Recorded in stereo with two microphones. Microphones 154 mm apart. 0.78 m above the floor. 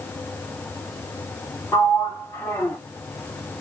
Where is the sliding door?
15° left (ahead or behind), 1.5 m.